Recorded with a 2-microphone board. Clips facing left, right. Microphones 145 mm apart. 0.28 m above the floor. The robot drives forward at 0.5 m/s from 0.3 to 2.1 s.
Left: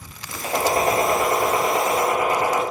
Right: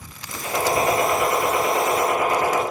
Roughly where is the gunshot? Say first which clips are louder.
Left 1 dB; left.